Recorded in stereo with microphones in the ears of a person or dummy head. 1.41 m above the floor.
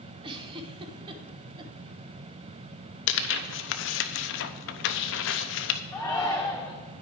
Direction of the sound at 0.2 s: 30° right (ahead or behind).